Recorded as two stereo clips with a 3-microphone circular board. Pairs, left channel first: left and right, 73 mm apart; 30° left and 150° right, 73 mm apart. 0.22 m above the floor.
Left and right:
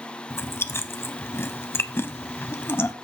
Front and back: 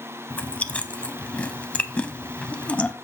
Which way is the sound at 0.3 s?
90° left.